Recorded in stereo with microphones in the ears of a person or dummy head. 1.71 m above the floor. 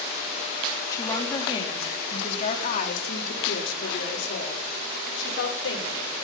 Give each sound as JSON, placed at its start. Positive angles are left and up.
{"t": 0.9, "sound": "a woman speaking", "side_deg": 15, "distance_m": 4.5}